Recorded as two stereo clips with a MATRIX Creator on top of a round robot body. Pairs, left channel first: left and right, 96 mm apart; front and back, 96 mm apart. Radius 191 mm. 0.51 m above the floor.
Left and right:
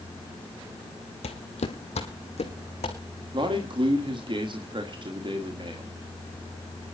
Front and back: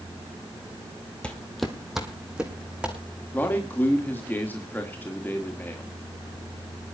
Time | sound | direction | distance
1.2 | footsteps | 80° left | 1.1 m
3.3 | a man speaking | 70° right | 2.0 m